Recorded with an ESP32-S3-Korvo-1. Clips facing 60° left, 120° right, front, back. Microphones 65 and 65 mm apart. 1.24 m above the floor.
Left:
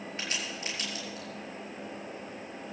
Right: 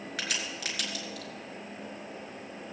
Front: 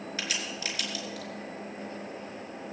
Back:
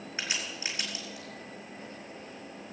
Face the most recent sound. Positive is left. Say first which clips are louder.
# right 2 dB, even
turn(degrees=-115)